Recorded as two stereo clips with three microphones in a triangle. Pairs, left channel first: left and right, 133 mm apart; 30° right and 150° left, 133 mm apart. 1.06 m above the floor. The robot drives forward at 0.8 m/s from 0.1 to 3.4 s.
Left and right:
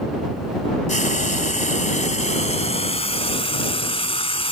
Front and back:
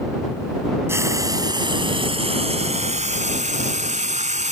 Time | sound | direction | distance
0.9 | frying | 80° left | ?